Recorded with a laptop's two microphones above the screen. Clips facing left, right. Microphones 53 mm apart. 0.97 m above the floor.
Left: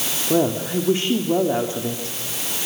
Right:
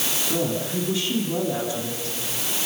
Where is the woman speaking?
40° left (ahead or behind), 1.9 m.